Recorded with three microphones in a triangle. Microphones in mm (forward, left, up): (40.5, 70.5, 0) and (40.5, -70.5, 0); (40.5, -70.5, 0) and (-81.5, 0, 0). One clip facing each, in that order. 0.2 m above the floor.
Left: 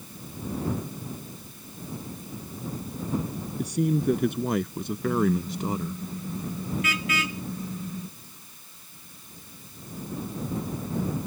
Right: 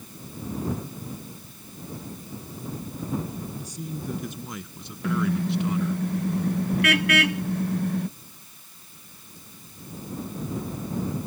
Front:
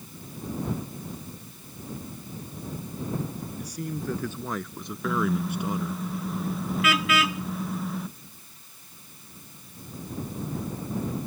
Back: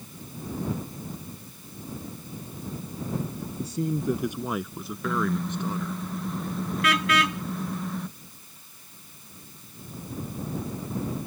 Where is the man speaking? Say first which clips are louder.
Left 10 dB, back 7 dB; 90° left; by 6.0 s 35° left.